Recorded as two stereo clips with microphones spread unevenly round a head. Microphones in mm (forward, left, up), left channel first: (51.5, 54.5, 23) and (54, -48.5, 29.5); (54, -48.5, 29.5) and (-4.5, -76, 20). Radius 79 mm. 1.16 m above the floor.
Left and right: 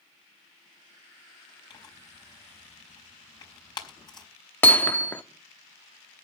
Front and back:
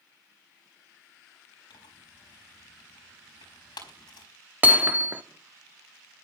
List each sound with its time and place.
1.7 s tearing paper: 45° left, 4.5 m
4.6 s hammering: 155° left, 0.7 m